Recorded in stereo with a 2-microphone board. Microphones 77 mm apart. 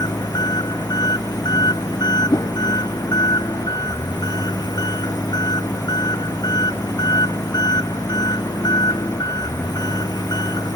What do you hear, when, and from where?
0.0 s an engine running: 60° left (ahead or behind)
2.3 s a whoosh: 60° left (ahead or behind)